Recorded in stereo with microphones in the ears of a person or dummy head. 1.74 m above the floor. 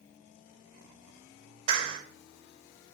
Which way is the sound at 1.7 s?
25° right (ahead or behind).